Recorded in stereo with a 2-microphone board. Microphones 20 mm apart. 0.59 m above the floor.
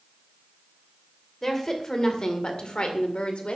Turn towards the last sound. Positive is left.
turn(degrees=65)  # may be behind; listen again after turning